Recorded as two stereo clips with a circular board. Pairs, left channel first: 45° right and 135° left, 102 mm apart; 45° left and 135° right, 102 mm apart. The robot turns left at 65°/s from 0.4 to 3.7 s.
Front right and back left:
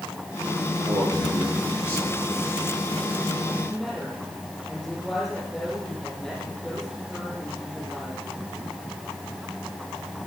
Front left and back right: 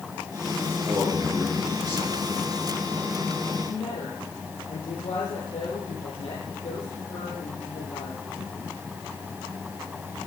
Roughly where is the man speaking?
Behind.